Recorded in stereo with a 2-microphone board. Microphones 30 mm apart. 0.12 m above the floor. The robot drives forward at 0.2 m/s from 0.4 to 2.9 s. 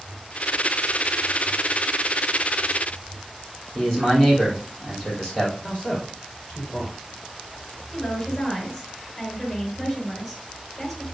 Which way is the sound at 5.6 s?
30° left (ahead or behind).